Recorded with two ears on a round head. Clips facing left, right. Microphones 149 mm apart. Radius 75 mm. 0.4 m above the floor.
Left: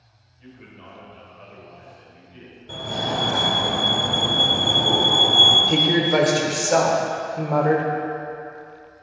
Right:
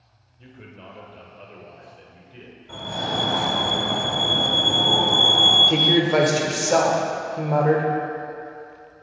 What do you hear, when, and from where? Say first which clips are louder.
0.4 s a man speaking: right 1 dB; 45° right (ahead or behind), 1.6 m
2.7 s a fire alarm: left 2 dB; 30° left (ahead or behind), 1.9 m
5.7 s a woman speaking: right 1 dB; centre (ahead or behind), 0.9 m